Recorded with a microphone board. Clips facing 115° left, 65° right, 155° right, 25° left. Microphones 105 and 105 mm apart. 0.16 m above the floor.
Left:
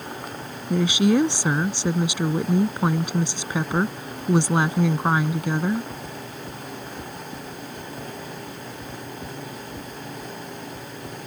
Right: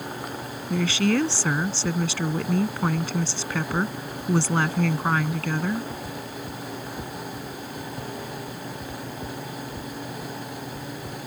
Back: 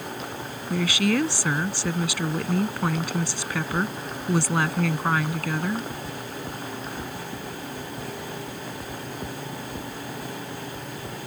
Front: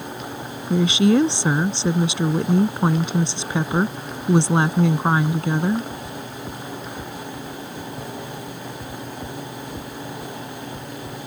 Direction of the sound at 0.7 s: 60° left.